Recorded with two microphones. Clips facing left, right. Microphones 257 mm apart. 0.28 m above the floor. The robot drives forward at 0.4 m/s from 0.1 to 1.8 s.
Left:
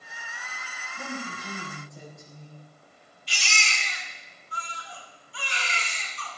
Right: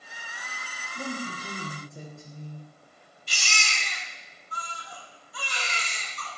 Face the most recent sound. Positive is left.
turn(degrees=-50)  # may be behind; listen again after turning